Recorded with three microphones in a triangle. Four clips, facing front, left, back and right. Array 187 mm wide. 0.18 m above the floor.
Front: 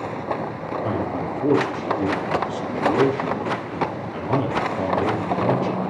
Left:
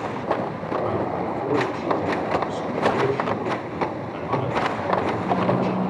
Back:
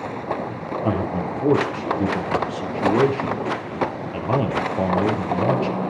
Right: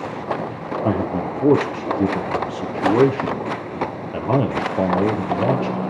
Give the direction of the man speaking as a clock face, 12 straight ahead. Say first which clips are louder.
Right 6 dB, back 3 dB; 3 o'clock.